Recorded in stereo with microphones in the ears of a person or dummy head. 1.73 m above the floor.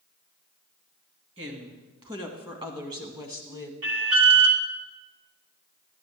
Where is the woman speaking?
30° right (ahead or behind), 2.5 m; by 3.7 s 15° right (ahead or behind), 1.4 m.